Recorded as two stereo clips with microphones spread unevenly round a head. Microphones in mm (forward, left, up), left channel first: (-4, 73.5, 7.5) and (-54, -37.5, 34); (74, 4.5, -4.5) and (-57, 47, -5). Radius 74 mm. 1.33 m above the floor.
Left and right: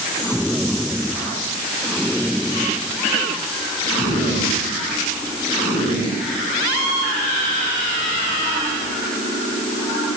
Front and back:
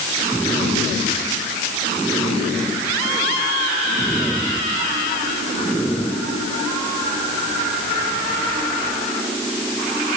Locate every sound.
Only background noise.